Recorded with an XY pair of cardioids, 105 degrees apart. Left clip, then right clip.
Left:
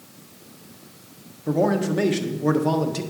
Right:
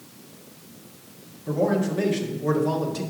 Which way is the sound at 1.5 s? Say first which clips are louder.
Left 2 dB; 45° left.